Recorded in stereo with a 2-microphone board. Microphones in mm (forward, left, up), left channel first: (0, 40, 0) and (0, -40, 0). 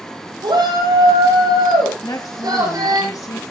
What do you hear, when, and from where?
0.4 s a shout: 70° right (ahead or behind), 9.5 m; by 3.0 s 55° right (ahead or behind), 11.5 m
2.0 s a woman speaking: 45° left (ahead or behind), 1.6 m